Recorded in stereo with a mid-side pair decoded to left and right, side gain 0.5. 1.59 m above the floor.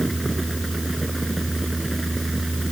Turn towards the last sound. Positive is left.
turn(degrees=-10)